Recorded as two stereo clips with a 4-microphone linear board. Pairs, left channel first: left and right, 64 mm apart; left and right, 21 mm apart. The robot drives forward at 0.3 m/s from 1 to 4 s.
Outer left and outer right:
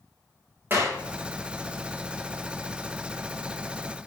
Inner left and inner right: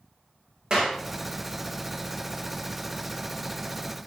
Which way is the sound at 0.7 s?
35° right (ahead or behind).